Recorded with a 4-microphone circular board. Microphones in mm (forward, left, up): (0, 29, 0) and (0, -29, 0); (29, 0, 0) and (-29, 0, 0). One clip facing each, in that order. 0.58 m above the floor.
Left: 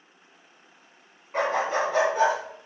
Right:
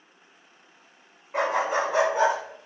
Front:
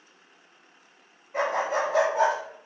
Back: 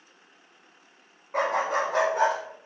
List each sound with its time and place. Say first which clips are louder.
1.3 s a dog barking: even, back 1 dB; 175° right, 1.1 m; by 2.4 s 155° right, 1.5 m